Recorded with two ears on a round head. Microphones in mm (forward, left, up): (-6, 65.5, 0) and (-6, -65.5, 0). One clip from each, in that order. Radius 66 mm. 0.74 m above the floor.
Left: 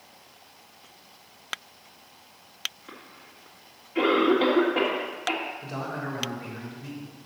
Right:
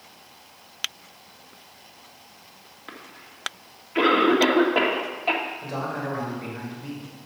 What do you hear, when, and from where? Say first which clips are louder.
2.9 s a cough: right 4 dB; 45° right (ahead or behind), 1.7 m
5.6 s a man speaking: right 4 dB; 5° right (ahead or behind), 3.5 m